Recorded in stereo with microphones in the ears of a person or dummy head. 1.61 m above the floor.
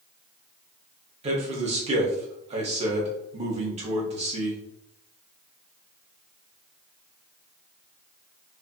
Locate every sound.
1.2 s a man speaking: 35° right (ahead or behind), 0.7 m